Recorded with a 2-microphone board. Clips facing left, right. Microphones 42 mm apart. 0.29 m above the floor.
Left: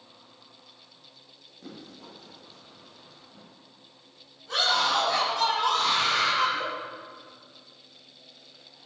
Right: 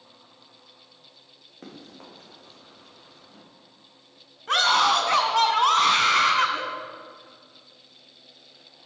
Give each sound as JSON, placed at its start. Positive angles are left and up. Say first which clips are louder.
{"t": 1.6, "sound": "running footsteps", "louder": "right 1 dB", "side_deg": -45, "distance_m": 6.0}
{"t": 4.5, "sound": "a scream", "louder": "right 5 dB", "side_deg": -65, "distance_m": 2.5}